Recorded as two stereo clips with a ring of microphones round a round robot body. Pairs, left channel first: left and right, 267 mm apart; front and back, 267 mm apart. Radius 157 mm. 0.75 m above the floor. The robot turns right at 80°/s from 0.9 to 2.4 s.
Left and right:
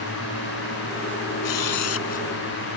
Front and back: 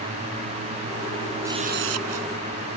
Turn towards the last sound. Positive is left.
turn(degrees=175)